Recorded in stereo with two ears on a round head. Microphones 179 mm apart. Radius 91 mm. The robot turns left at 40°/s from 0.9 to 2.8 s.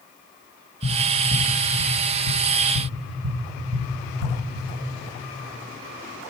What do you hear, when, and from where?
0.8 s tapping: 20° right (ahead or behind), 2.5 m; by 4.4 s 85° right, 2.5 m